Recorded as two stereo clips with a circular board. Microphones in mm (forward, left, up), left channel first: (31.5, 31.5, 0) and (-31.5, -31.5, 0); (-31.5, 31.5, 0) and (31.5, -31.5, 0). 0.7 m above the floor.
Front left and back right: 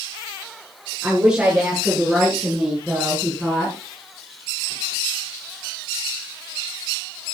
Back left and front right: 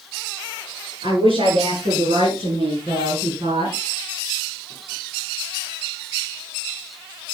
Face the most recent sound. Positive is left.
turn(degrees=-45)